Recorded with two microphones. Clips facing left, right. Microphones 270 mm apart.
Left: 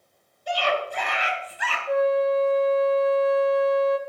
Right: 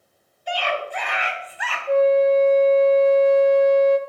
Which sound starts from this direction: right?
A flute, at 1.9 s.